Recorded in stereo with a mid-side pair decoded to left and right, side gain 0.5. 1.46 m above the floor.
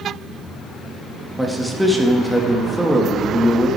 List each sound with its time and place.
1.4 s a man speaking: 5° right, 2.5 m